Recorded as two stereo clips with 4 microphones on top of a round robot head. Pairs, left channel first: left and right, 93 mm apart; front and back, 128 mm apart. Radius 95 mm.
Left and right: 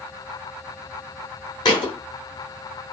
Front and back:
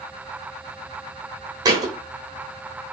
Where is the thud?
120° left, 0.8 m.